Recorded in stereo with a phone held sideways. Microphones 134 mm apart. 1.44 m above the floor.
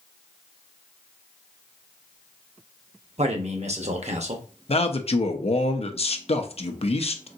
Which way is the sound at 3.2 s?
55° right (ahead or behind).